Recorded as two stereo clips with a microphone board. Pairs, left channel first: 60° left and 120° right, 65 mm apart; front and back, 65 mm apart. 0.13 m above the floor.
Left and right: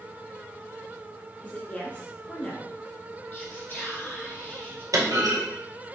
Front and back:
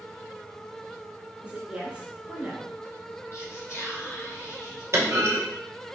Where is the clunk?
140° right, 1.6 m.